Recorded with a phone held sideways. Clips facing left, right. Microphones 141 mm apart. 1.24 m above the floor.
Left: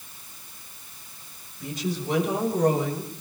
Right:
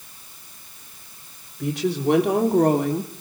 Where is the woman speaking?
70° right (ahead or behind), 4.5 m; by 3.1 s 60° right (ahead or behind), 2.5 m.